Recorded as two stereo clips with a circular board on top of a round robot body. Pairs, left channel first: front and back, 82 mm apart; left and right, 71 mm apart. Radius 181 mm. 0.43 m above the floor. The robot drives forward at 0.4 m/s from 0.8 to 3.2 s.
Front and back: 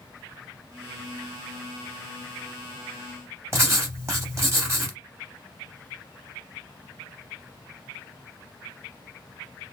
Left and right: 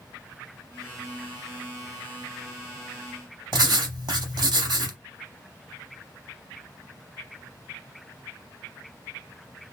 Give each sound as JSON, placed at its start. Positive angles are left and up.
{"t": 3.5, "sound": "writing", "azimuth_deg": -120, "distance_m": 0.7}